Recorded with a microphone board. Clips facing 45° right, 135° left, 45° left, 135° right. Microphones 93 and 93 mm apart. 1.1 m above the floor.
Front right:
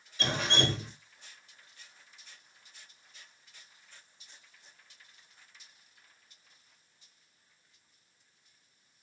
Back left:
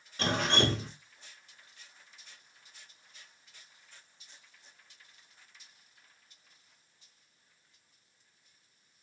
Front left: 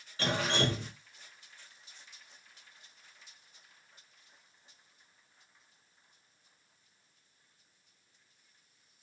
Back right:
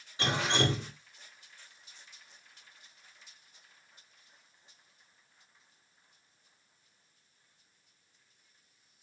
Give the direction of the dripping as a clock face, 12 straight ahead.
7 o'clock.